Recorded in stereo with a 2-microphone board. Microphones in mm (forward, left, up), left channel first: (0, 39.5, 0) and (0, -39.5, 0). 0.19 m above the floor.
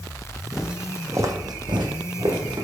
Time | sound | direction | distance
0.5 | footsteps | centre (ahead or behind) | 0.7 m